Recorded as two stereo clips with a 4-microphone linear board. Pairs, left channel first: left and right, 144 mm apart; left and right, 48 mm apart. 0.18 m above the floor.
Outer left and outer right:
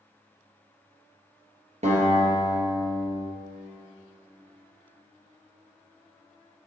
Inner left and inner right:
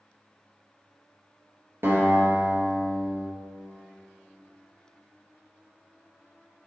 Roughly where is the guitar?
Right.